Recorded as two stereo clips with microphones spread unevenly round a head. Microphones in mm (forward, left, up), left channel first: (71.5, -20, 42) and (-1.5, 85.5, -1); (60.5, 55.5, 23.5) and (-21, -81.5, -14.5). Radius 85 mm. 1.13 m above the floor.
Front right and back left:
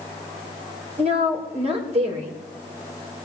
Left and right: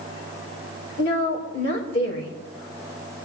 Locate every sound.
1.0 s a woman speaking: 90° left, 3.5 m